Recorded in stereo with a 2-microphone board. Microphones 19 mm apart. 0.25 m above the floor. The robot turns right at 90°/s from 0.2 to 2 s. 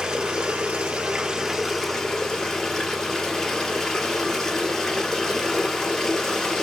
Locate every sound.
0.0 s running water: 140° right, 1.3 m; by 6.7 s 20° left, 1.3 m